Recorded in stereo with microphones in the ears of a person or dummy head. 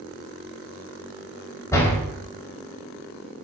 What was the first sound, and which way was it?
A door slam, 15° left (ahead or behind).